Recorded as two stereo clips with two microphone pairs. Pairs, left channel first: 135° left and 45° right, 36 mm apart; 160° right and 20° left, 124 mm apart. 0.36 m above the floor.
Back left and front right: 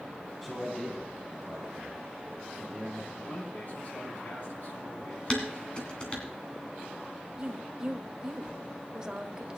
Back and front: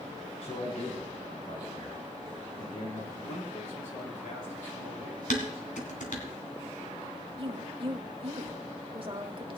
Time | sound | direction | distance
0.4 | a man speaking | 135° right | 3 m
3.1 | a man speaking | 175° left | 6 m
5.3 | dishes clattering | 160° right | 2.5 m
7.4 | a woman speaking | 15° left | 1.3 m